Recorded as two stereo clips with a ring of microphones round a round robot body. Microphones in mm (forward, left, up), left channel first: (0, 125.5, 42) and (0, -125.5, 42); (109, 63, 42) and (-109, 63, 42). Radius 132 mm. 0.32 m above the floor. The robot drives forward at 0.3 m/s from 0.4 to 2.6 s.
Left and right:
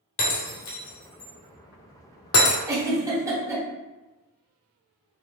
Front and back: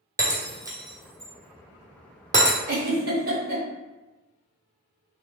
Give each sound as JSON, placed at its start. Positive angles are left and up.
{"t": 0.2, "sound": "breaking glass", "azimuth_deg": 105, "distance_m": 1.5}
{"t": 2.7, "sound": "a giggle", "azimuth_deg": -165, "distance_m": 1.1}